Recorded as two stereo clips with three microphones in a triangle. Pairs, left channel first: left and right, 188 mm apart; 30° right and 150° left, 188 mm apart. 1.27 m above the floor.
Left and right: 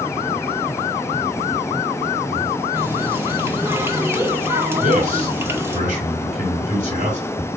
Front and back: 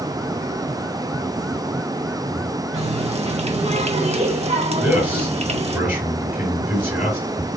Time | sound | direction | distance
2.7 | a running tap | 165° right | 0.9 m
4.8 | a man speaking | 130° right | 4.5 m